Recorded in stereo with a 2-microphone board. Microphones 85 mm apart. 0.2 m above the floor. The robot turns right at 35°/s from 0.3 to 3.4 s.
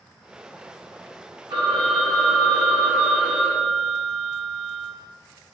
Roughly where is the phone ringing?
Right.